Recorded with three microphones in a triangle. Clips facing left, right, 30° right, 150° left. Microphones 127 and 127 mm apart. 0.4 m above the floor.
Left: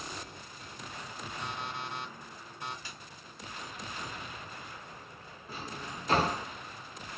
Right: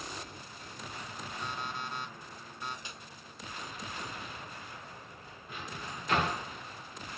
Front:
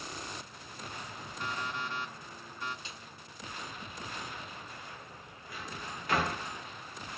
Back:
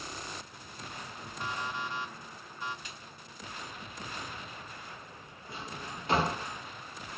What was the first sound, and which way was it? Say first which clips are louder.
An alarm clock: even, back 1 dB; 75° left.